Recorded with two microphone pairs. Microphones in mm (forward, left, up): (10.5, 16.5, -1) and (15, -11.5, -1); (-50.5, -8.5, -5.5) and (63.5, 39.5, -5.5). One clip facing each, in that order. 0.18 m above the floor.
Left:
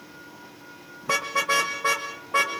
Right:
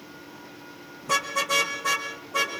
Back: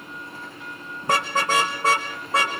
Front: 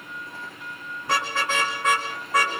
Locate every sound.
1.0 s a car horn: 155° left, 5 m; by 2.5 s 140° left, 5 m